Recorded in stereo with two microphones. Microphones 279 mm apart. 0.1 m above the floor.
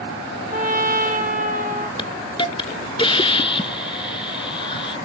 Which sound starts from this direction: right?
A trumpet, at 0.5 s.